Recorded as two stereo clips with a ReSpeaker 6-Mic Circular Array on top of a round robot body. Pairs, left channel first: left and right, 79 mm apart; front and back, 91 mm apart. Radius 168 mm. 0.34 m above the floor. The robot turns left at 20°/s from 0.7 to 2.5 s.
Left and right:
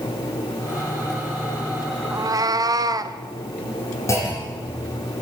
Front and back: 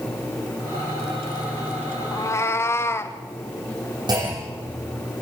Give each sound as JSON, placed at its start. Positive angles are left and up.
{"t": 2.1, "sound": "a cat meowing", "azimuth_deg": -50, "distance_m": 1.3}
{"t": 4.1, "sound": "a clunk", "azimuth_deg": 140, "distance_m": 9.0}